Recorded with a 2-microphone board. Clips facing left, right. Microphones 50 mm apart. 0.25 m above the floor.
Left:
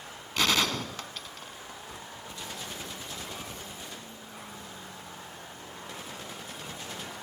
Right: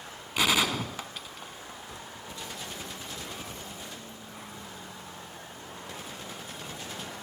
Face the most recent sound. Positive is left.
turn(degrees=-10)  # may be behind; listen again after turning